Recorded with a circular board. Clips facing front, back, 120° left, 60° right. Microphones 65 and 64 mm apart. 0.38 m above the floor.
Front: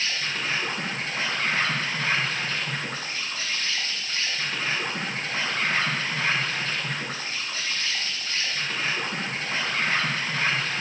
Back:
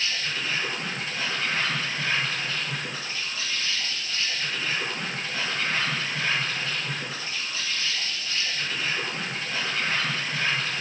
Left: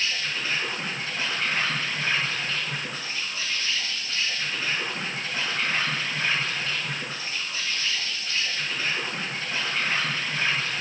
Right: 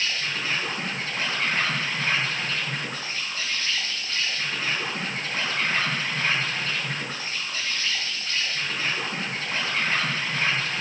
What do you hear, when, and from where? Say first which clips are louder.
0.0 s an insect: front 1 dB, right 1 dB; 25° right, 5.5 m